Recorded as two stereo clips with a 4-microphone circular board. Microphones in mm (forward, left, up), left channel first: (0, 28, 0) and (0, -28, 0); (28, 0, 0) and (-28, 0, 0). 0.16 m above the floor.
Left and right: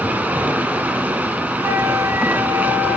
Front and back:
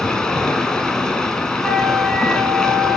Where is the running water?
70° right, 1.4 m.